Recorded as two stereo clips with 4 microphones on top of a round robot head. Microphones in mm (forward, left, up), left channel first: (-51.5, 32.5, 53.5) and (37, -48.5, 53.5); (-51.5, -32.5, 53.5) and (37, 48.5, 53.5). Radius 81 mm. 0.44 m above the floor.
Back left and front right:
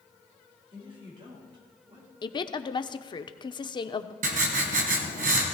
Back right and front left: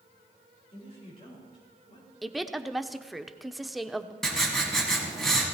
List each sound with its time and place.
0.7 s a woman speaking: 90° right, 7.5 m
2.2 s a woman speaking: 130° left, 0.9 m
4.2 s writing: 50° right, 2.5 m